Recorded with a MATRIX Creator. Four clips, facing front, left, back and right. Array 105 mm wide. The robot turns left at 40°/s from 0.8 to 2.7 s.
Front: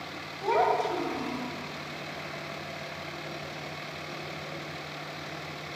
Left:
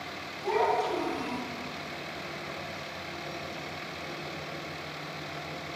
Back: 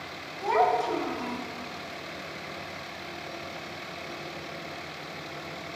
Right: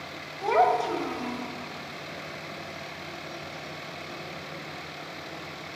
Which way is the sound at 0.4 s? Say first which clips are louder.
Right 5 dB, back 1 dB; 80° right.